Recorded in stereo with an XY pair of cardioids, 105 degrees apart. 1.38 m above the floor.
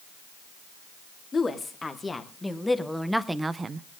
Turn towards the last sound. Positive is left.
turn(degrees=-50)